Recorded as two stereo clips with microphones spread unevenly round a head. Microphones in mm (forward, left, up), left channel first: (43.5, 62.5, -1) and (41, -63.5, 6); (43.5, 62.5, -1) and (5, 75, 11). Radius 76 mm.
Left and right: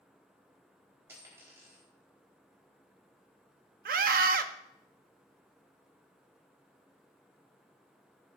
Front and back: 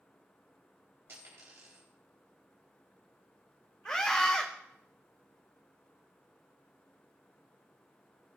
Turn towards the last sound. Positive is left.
turn(degrees=-95)